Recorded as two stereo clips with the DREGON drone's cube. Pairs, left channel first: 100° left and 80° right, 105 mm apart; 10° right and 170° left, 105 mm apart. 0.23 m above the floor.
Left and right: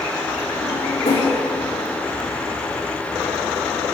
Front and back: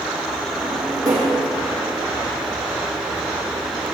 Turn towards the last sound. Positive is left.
turn(degrees=115)